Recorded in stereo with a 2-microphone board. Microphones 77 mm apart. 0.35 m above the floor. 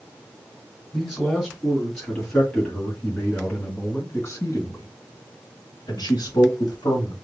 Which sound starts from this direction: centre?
A man speaking, at 0.9 s.